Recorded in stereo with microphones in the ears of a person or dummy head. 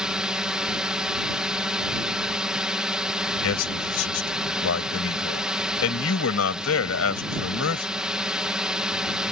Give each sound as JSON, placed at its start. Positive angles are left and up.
{"t": 0.0, "sound": "a drone", "side_deg": -5}
{"t": 3.4, "sound": "a man speaking", "side_deg": 85}